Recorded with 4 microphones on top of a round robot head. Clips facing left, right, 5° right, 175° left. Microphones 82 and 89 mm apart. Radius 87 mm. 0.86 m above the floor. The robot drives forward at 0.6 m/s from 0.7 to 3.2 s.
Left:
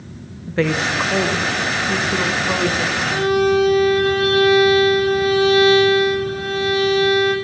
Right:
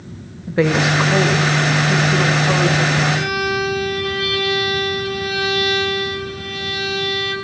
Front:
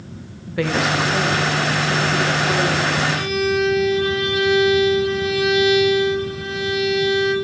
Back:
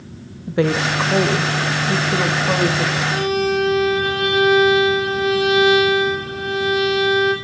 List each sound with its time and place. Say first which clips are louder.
0.5 s a woman speaking: right 3 dB, back 2 dB; 155° right, 0.7 m; by 3.0 s 175° right, 1.8 m
3.1 s a violin: left 4 dB, back 2 dB; 140° left, 6 m